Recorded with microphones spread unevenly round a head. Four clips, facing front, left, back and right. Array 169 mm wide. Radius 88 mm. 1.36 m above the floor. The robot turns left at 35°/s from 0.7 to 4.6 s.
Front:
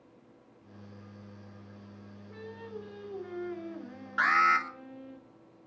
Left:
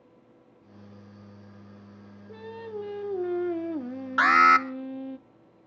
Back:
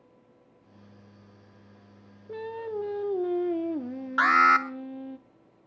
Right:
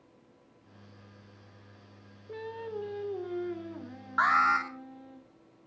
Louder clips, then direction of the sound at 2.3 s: Even, back 10 dB; 165° right.